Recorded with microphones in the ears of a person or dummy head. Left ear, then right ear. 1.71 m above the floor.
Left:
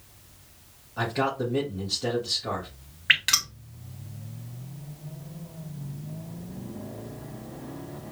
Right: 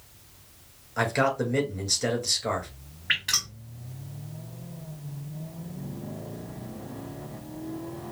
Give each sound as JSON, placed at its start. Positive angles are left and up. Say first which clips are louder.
{"t": 1.0, "sound": "a man speaking", "louder": "right 2 dB", "side_deg": -65, "distance_m": 2.5}
{"t": 3.1, "sound": "dripping", "louder": "left 4 dB", "side_deg": 25, "distance_m": 0.9}